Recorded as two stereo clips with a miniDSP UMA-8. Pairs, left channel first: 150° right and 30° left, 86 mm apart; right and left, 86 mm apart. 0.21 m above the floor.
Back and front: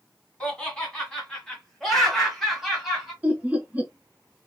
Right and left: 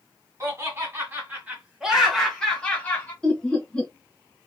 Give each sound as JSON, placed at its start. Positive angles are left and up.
{"t": 0.4, "sound": "laughter", "azimuth_deg": 130, "distance_m": 1.9}
{"t": 3.2, "sound": "laughter", "azimuth_deg": -20, "distance_m": 1.2}